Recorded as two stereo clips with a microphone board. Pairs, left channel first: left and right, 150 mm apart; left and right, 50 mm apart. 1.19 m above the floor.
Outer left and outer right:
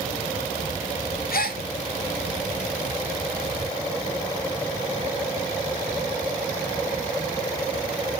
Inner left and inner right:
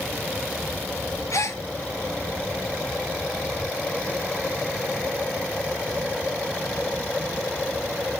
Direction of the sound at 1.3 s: 75° left (ahead or behind).